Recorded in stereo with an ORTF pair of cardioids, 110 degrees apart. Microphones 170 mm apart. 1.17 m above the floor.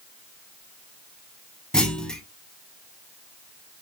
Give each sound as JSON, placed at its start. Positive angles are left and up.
{"t": 1.7, "sound": "a clunk", "azimuth_deg": 5, "distance_m": 0.6}